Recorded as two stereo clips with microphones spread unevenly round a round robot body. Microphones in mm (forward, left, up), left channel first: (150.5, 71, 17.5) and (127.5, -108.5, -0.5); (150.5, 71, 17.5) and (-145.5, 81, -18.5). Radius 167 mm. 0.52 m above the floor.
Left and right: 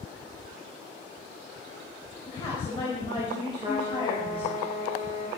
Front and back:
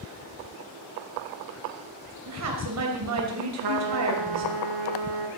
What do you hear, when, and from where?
2.3 s a woman speaking: 155° left, 3 m
3.6 s a trumpet: 175° right, 1.7 m